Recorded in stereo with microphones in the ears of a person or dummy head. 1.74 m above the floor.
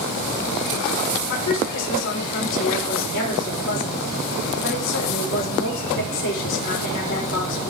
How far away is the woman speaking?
About 5 m.